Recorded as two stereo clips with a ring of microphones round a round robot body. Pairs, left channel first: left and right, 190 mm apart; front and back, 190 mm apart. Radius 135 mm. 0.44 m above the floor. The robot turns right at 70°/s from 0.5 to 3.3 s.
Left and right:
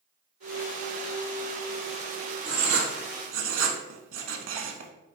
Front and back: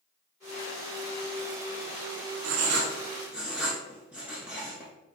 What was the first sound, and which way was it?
Writing, 155° right.